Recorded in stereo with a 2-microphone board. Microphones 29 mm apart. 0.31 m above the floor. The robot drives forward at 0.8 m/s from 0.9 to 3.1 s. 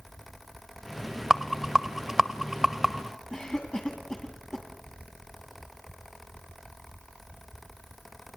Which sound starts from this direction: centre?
A rattle, at 1.3 s.